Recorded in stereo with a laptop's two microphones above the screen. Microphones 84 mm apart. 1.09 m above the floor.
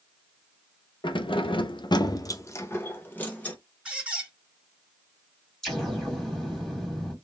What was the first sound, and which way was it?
Keys jangling, 65° left (ahead or behind).